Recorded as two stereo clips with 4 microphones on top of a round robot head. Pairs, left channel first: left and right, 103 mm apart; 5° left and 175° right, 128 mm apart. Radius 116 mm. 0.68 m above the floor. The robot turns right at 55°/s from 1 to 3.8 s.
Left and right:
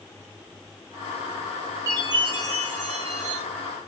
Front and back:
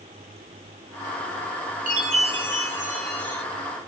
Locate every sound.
1.9 s a chime: 155° right, 0.8 m; by 3.4 s 70° right, 0.8 m